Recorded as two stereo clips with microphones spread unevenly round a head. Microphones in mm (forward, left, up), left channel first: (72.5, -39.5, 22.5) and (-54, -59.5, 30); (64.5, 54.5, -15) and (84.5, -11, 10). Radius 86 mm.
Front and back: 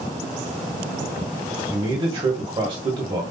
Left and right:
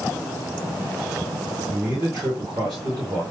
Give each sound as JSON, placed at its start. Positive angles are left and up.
{"t": 1.7, "sound": "a man speaking", "azimuth_deg": -125, "distance_m": 1.5}